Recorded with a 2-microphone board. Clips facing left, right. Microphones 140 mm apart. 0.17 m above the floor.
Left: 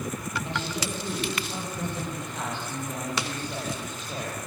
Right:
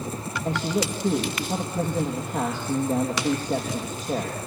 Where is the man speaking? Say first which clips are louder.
Right 10 dB; 45° right (ahead or behind), 4.5 m.